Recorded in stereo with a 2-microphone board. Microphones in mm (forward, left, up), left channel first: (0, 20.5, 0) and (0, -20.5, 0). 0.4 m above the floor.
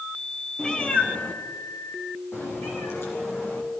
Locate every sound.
0.6 s a cat meowing: 20° left (ahead or behind), 1.7 m; by 3.8 s 85° left, 5 m